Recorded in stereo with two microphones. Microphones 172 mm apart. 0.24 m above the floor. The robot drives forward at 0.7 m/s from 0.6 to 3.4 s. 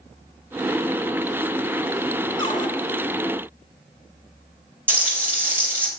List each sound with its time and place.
2.4 s a cupboard door: 30° left (ahead or behind), 1.4 m
4.9 s frying: 10° right (ahead or behind), 3 m